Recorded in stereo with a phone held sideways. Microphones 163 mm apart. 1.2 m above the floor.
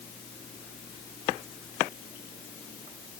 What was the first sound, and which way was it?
Only background noise.